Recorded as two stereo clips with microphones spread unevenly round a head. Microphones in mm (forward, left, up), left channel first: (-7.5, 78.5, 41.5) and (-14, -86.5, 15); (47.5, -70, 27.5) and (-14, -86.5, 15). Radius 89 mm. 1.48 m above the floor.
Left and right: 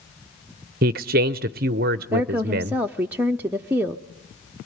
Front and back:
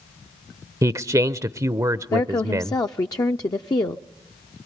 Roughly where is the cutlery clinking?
I don't hear cutlery clinking.